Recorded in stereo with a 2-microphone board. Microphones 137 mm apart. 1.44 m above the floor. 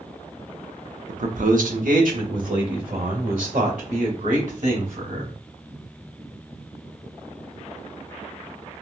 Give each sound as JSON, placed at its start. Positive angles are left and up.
{"t": 1.1, "sound": "a man speaking", "side_deg": -65, "distance_m": 0.6}